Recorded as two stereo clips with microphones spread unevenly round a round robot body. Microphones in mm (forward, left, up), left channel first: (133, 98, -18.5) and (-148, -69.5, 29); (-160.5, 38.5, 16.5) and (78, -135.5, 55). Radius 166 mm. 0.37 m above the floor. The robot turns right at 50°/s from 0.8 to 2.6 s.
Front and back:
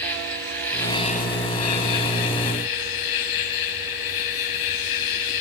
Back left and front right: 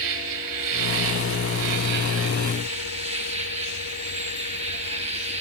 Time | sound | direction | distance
0.0 | an insect | 55° right | 1.3 m